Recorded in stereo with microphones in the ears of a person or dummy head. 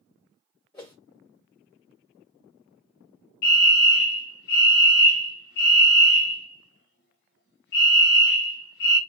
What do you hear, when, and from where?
0.7 s a whoosh: 10° left (ahead or behind), 1.1 m
3.4 s a fire alarm: 40° left (ahead or behind), 0.9 m